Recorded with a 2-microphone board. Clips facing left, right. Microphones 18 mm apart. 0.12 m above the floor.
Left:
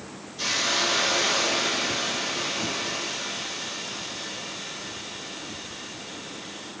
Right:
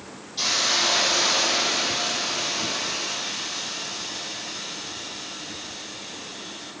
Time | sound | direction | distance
0.4 | a hiss | 75° right (ahead or behind) | 5 m